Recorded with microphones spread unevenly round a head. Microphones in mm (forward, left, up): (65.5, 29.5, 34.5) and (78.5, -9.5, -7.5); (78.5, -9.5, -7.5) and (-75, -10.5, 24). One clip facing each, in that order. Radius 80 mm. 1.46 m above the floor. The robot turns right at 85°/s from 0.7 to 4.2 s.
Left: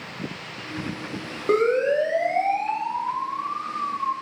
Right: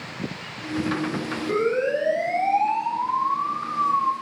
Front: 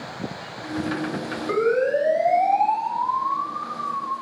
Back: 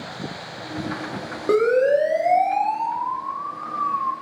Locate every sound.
1.5 s a siren: 130° left, 5 m; by 4.1 s 45° right, 4.5 m